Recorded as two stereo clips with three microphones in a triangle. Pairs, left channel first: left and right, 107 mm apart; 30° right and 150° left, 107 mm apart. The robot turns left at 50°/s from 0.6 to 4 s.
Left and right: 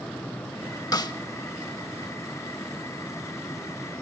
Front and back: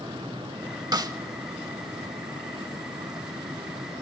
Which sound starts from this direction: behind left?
A snare drum, at 0.9 s.